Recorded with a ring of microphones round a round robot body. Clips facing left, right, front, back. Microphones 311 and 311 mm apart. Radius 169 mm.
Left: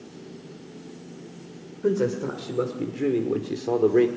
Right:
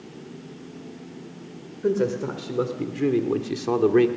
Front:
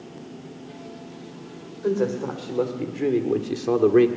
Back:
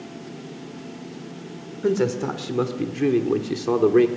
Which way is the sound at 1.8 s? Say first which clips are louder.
Even, back 2 dB; 175° left.